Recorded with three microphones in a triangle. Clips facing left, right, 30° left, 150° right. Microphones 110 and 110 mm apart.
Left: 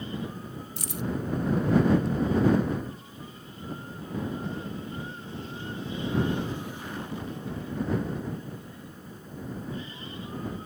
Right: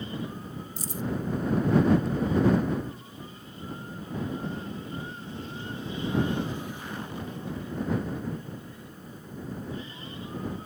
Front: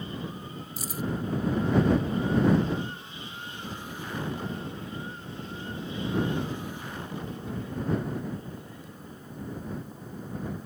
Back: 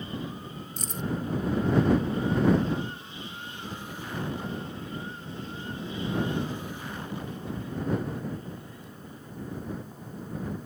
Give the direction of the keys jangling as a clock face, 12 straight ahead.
8 o'clock.